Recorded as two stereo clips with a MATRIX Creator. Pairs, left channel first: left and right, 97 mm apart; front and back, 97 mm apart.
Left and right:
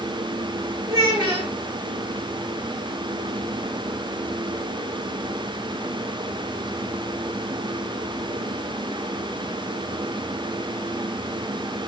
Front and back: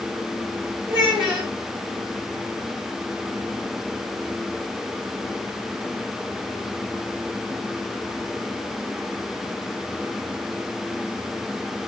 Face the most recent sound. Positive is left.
turn(degrees=-100)